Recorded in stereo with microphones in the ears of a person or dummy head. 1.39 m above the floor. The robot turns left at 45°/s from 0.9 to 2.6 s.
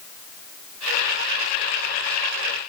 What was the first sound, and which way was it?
Only background noise.